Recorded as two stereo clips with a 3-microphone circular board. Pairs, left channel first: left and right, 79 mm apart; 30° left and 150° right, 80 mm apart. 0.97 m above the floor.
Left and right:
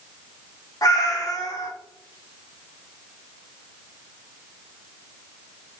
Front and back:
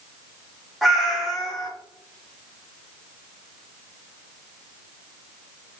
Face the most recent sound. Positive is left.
turn(degrees=120)